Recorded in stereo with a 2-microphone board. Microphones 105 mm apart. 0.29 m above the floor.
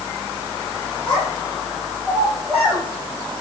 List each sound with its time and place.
1.1 s a child speaking: 5° left (ahead or behind), 9 m; by 2.8 s 5° right (ahead or behind), 7.5 m